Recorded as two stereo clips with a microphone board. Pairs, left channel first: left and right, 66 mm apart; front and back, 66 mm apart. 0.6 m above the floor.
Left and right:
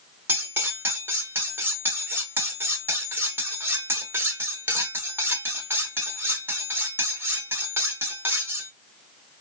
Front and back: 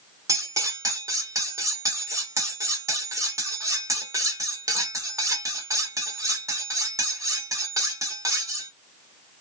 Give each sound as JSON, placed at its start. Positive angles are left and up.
{"t": 0.3, "sound": "cutlery clinking", "azimuth_deg": -145, "distance_m": 1.0}